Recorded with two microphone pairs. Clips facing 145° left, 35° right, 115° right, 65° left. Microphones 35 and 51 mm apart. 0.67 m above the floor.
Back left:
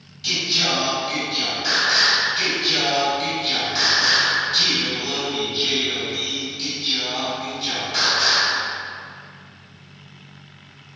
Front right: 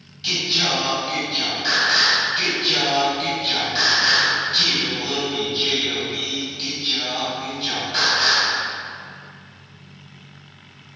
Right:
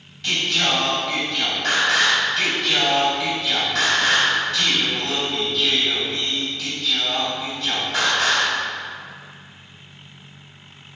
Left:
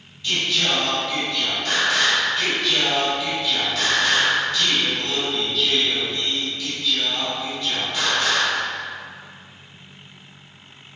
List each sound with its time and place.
0.2 s singing: 105° right, 2.5 m